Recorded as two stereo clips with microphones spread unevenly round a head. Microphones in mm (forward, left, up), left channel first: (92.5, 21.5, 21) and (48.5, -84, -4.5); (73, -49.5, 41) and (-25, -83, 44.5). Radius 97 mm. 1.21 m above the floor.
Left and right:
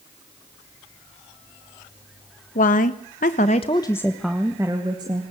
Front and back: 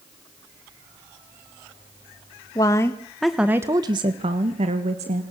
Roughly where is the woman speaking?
Left.